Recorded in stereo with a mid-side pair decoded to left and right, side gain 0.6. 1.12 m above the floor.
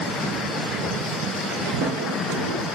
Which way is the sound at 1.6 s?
70° right.